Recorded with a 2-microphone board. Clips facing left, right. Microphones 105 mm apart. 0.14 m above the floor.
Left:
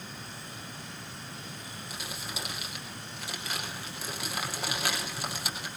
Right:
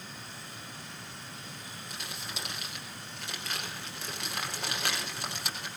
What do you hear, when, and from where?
1.9 s crumpling: 5° left (ahead or behind), 4.5 m